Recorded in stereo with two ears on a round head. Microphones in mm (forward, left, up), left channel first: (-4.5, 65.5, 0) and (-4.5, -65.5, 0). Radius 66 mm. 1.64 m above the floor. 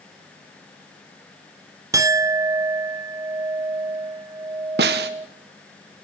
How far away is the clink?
About 0.7 m.